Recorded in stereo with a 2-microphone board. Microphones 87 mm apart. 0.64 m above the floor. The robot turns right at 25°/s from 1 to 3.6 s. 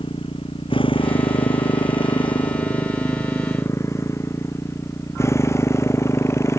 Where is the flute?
I don't hear a flute.